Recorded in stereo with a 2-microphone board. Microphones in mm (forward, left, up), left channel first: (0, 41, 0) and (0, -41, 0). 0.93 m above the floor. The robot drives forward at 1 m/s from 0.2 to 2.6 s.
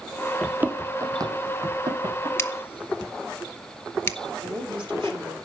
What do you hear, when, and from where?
0.4 s running footsteps: 10° right (ahead or behind), 0.9 m; by 2.3 s 55° right (ahead or behind), 3 m
2.4 s scissors: 30° left (ahead or behind), 0.7 m
4.4 s a woman speaking: 70° right (ahead or behind), 2.5 m